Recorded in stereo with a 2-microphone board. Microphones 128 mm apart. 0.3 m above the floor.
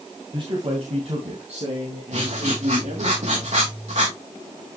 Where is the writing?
65° right (ahead or behind), 5.5 m.